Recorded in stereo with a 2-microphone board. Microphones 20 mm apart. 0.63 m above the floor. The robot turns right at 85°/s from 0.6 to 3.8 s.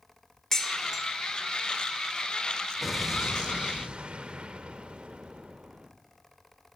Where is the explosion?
175° left, 0.7 m; by 5.9 s 100° right, 0.7 m.